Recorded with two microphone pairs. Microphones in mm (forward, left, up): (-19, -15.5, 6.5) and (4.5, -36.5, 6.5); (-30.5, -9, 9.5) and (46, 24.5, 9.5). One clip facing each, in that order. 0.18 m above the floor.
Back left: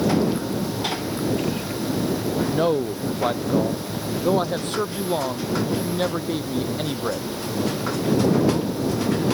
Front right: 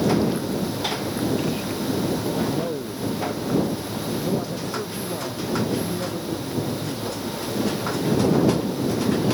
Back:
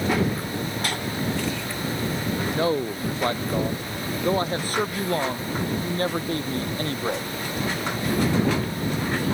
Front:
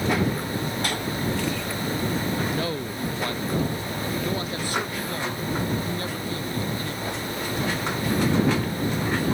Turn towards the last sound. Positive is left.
turn(degrees=165)